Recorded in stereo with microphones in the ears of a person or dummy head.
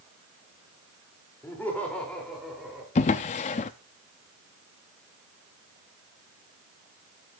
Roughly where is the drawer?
Left.